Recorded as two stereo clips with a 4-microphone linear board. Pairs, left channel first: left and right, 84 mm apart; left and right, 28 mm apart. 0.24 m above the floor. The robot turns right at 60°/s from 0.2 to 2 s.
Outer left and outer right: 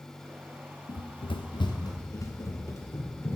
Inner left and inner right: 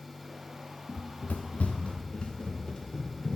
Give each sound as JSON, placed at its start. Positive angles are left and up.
{"t": 0.9, "sound": "running footsteps", "side_deg": 50, "distance_m": 0.9}